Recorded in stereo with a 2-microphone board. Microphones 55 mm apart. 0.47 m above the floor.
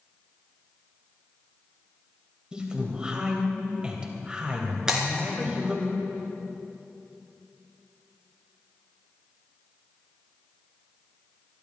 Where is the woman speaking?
15° right (ahead or behind), 3 m.